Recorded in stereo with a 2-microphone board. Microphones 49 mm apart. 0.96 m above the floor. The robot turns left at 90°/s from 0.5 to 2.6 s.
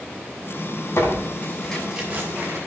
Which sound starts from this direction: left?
Tearing paper, at 1.0 s.